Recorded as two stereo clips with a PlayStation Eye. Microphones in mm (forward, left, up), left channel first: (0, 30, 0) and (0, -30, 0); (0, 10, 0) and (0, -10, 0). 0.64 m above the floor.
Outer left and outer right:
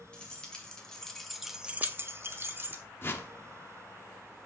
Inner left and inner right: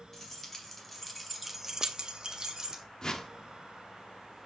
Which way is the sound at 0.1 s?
15° left (ahead or behind).